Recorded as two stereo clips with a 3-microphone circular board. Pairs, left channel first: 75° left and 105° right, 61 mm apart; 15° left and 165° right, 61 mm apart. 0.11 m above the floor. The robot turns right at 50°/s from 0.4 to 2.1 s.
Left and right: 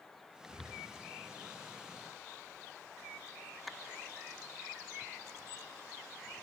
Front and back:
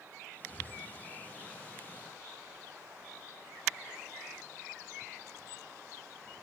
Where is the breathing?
155° left, 4 m; by 0.8 s 170° left, 4 m.